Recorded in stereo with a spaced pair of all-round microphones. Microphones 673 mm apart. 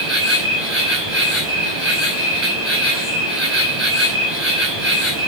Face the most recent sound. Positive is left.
turn(degrees=-40)  # may be behind; listen again after turning